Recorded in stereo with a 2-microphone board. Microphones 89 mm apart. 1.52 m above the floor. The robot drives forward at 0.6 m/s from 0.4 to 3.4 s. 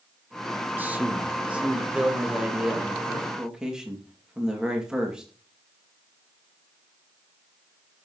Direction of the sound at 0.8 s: 20° right (ahead or behind).